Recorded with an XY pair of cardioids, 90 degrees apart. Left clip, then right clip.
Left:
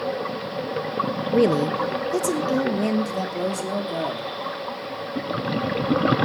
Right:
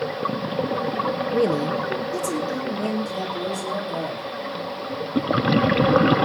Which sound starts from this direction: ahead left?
A woman speaking, at 1.3 s.